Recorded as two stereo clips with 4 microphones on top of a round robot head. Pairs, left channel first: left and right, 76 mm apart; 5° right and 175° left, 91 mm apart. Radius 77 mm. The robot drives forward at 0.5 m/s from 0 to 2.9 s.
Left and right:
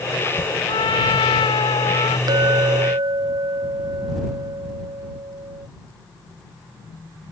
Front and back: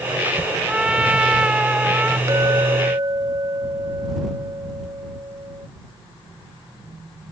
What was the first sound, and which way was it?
A trumpet, 100° left.